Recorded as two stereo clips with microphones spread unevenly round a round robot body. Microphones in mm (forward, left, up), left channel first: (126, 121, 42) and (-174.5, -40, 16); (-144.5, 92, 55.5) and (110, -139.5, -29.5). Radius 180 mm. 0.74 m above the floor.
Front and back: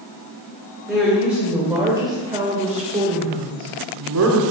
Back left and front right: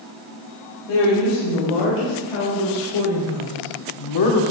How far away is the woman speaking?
About 4.5 m.